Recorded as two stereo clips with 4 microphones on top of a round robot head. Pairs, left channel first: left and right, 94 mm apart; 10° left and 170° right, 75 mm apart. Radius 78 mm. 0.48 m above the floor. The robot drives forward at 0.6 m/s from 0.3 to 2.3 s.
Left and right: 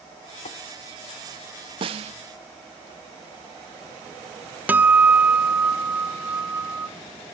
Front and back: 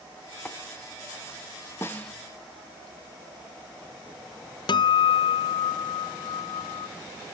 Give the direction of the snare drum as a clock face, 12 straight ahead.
2 o'clock.